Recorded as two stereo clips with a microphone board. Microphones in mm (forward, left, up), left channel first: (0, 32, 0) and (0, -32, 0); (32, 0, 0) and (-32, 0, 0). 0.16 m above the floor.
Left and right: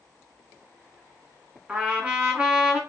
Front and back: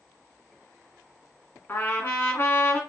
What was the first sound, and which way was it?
A trumpet, 30° right.